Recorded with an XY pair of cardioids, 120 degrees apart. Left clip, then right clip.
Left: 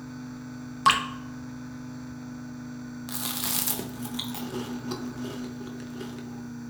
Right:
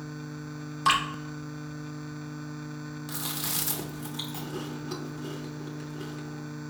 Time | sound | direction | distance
0.8 | dripping | 30° left | 0.8 m
3.1 | chewing | 25° left | 0.8 m